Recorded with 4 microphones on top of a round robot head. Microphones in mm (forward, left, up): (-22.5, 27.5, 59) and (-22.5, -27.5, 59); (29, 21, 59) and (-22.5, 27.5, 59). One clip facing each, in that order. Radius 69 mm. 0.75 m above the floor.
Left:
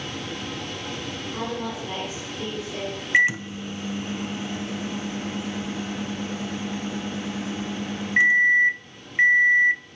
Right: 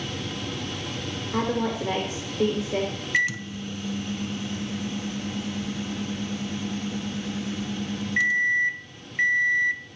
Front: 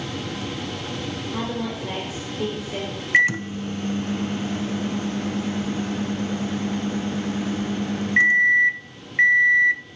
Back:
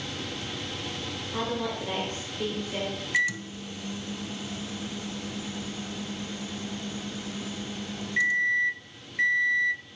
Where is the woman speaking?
95° right, 4.5 m.